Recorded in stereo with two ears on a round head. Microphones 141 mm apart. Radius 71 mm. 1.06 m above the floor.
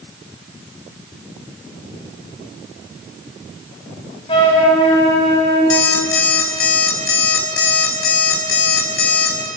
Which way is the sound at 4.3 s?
35° left (ahead or behind).